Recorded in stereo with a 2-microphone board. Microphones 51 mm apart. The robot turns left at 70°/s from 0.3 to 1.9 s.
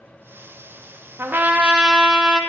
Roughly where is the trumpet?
Behind right.